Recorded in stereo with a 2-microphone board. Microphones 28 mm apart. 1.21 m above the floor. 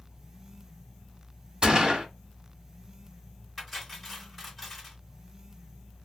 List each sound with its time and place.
1.6 s a gunshot: 35° right (ahead or behind), 1.2 m
3.6 s cutlery clinking: centre (ahead or behind), 3.5 m